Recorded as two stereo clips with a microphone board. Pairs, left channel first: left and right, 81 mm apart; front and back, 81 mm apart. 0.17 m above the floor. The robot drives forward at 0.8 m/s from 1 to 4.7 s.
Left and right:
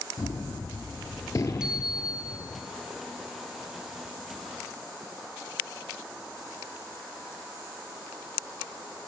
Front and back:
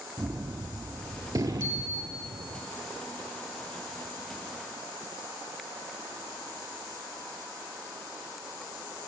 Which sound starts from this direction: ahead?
A bicycle bell, at 1.6 s.